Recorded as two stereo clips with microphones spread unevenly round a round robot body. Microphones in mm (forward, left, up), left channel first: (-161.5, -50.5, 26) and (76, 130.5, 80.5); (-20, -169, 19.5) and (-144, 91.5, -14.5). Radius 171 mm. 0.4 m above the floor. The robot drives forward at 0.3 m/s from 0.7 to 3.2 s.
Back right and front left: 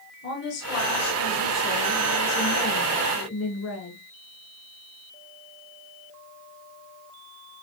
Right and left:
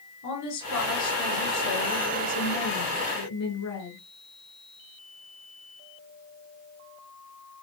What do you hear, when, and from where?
0.2 s a woman speaking: 85° right, 7 m; by 4.0 s 95° right, 7 m